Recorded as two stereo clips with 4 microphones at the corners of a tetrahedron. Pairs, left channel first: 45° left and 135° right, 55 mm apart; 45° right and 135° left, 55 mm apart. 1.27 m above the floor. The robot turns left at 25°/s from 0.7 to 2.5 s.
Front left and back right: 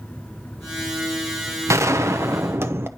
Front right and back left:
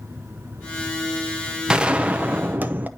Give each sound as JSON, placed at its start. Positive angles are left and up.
{"t": 1.7, "sound": "a gunshot", "azimuth_deg": -150, "distance_m": 0.8}